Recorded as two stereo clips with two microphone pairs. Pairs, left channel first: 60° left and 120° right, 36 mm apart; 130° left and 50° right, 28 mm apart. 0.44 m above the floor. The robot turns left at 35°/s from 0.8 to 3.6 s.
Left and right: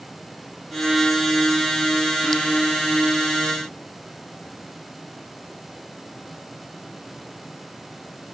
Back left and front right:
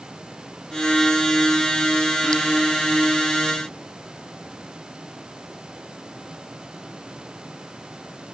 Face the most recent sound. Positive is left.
No sound to turn to.